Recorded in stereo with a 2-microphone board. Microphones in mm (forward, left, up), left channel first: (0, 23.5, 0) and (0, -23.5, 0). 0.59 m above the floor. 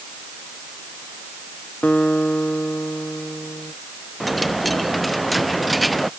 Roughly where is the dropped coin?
Centre.